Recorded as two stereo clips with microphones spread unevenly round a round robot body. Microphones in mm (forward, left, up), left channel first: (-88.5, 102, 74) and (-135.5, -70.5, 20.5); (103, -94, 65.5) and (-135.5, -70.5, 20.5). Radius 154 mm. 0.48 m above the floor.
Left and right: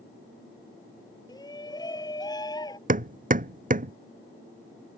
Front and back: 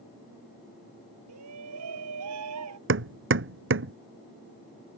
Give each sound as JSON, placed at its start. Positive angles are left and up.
{"t": 1.3, "sound": "a shout", "azimuth_deg": 140}
{"t": 2.9, "sound": "hammering", "azimuth_deg": -150}